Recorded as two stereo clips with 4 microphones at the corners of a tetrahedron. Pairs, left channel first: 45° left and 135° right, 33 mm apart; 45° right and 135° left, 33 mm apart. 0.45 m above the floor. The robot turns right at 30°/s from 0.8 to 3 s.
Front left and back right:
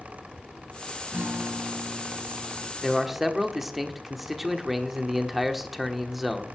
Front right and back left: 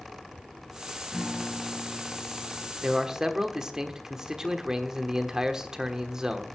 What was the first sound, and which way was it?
A guitar, 155° right.